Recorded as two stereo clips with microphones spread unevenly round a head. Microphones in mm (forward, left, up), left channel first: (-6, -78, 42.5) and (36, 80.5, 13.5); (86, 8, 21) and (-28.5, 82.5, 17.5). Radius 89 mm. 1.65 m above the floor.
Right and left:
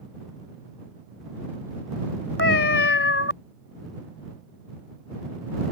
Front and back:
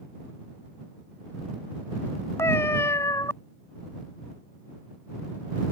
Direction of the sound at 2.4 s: 110° right.